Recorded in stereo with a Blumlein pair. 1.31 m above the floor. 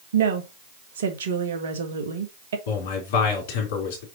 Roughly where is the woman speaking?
Ahead right.